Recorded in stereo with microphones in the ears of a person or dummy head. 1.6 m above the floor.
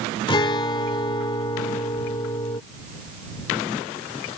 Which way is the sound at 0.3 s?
25° left (ahead or behind).